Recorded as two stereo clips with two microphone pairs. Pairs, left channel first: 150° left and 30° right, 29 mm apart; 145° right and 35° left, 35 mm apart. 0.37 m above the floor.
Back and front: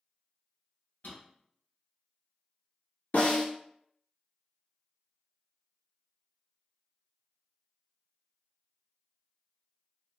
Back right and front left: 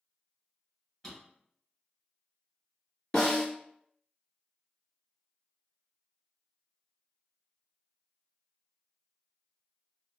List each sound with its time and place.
1.0 s a drawer: 145° left, 1.8 m
3.1 s a snare drum: 145° left, 1.4 m